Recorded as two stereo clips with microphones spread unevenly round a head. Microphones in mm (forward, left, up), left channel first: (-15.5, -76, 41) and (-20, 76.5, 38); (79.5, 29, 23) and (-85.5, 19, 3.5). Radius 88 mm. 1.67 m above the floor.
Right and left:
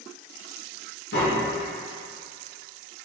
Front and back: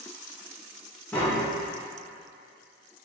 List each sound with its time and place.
1.1 s tapping: 70° right, 0.9 m